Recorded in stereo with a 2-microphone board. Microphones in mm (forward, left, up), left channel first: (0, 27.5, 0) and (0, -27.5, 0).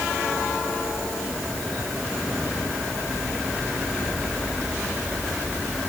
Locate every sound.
Only background noise.